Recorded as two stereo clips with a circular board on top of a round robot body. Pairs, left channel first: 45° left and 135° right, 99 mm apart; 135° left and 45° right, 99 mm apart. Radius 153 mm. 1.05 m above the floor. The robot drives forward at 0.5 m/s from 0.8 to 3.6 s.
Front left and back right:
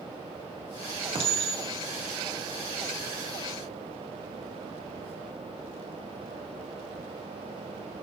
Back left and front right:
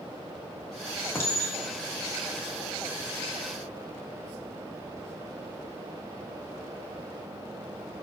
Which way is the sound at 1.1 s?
160° right.